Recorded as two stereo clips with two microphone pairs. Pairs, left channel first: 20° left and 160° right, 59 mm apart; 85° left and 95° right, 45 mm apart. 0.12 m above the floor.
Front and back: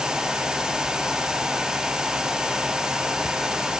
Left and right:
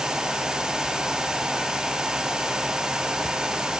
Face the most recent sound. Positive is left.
No sound to turn to.